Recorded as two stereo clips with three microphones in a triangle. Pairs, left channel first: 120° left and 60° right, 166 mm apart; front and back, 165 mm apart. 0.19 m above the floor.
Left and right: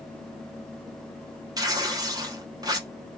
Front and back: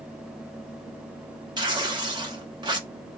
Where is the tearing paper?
125° right, 0.8 m.